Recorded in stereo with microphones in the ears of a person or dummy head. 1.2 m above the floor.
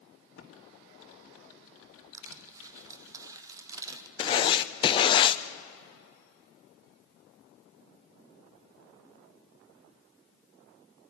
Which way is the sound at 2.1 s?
20° right (ahead or behind).